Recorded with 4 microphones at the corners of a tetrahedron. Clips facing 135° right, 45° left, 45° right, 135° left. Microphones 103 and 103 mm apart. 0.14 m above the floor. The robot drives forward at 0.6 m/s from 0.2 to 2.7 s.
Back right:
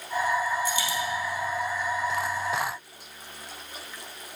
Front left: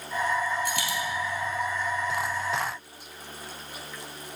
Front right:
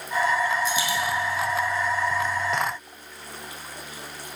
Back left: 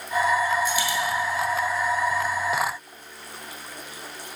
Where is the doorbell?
I don't hear a doorbell.